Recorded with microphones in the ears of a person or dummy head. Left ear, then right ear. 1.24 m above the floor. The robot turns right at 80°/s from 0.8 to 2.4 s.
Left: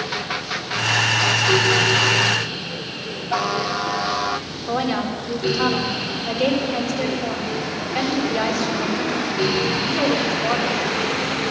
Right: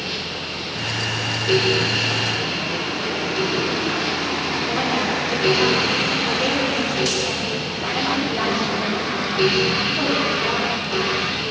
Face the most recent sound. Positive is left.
turn(degrees=25)  # may be behind; listen again after turning